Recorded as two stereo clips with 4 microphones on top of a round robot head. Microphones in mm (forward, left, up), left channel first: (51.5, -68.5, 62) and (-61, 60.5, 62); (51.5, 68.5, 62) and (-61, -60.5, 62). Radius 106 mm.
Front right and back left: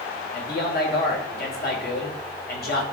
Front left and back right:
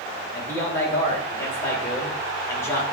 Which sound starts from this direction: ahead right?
A man speaking, at 0.3 s.